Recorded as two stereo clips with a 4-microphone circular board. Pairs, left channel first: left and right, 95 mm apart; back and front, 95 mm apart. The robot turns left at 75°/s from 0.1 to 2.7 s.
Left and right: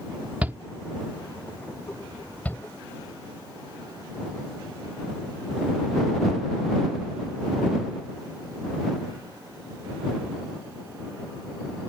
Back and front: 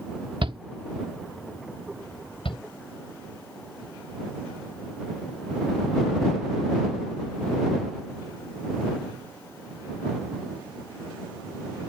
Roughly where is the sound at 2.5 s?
Behind.